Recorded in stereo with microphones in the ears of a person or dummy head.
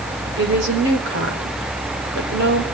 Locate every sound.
0.4 s a woman speaking: 60° right (ahead or behind), 4 m